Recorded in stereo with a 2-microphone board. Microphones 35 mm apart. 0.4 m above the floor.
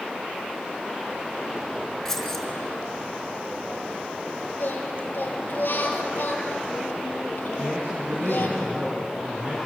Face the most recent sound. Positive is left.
turn(degrees=-60)  # may be behind; listen again after turning